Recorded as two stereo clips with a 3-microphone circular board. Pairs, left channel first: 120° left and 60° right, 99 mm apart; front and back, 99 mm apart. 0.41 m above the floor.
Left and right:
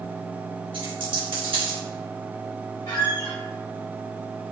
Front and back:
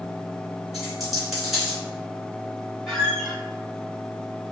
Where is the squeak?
95° left, 1.2 m.